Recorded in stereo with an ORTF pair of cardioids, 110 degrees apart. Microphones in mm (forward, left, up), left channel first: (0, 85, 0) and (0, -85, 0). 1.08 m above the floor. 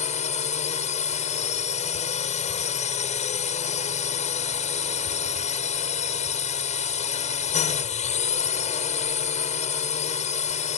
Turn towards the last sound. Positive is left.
turn(degrees=45)